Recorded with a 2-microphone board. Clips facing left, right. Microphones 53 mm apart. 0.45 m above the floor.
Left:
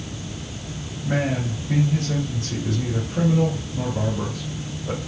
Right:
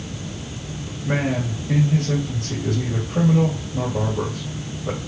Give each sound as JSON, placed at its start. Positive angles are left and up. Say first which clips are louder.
{"t": 1.0, "sound": "a man speaking", "louder": "right 1 dB", "side_deg": -60, "distance_m": 2.5}